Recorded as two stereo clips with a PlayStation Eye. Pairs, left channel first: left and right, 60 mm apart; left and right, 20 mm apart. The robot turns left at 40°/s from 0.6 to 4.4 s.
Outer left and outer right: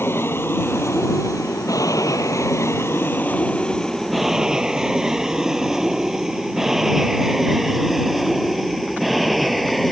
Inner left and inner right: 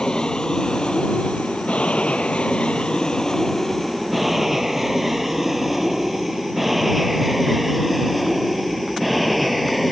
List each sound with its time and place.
0.0 s an aircraft: 45° left (ahead or behind); by 9.9 s centre (ahead or behind)